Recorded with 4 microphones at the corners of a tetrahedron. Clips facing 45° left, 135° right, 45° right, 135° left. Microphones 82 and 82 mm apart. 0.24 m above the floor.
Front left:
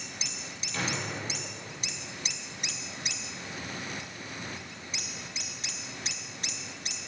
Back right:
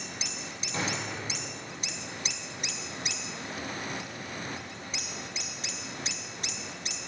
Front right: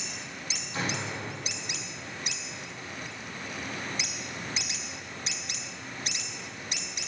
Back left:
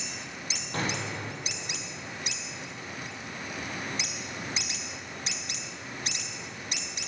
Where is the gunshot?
165° left, 5 m.